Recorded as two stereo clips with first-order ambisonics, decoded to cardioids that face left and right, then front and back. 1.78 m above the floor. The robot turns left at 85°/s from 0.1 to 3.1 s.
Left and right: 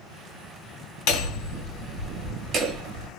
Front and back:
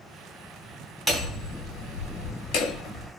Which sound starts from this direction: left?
Hammering, at 1.1 s.